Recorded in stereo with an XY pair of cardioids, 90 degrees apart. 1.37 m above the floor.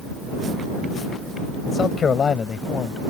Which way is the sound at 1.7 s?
50° left.